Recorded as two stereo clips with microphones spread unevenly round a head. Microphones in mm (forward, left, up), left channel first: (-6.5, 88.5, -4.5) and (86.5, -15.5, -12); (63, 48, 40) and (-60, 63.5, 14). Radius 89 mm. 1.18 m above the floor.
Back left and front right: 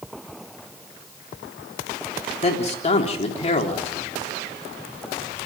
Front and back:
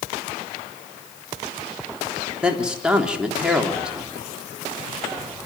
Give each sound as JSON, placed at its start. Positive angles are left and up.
{"t": 2.4, "sound": "a man speaking", "azimuth_deg": 90, "distance_m": 3.5}